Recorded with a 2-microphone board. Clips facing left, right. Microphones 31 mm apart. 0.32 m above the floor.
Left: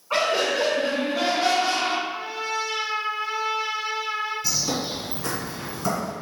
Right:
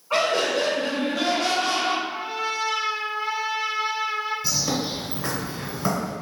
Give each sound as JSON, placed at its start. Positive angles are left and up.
{"t": 0.1, "sound": "laughter", "side_deg": 5, "distance_m": 1.1}
{"t": 2.1, "sound": "a trumpet", "side_deg": -30, "distance_m": 1.4}
{"t": 4.4, "sound": "a bird", "side_deg": -25, "distance_m": 1.6}